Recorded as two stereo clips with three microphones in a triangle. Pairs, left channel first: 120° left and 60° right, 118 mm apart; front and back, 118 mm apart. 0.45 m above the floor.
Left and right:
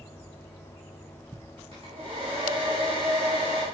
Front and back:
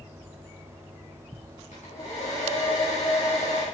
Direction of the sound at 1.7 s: 20° right.